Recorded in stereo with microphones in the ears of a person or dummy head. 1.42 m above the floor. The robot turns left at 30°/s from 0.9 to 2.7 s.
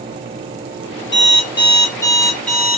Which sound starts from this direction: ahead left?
An alarm clock, at 1.1 s.